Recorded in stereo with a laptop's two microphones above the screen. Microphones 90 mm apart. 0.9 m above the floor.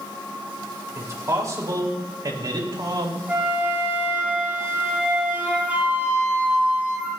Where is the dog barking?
No dog barking in this recording.